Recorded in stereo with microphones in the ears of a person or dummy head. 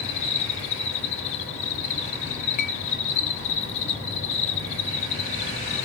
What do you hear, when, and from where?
0.0 s an insect: 35° left (ahead or behind), 3 m
2.6 s a clink: 45° left (ahead or behind), 1.0 m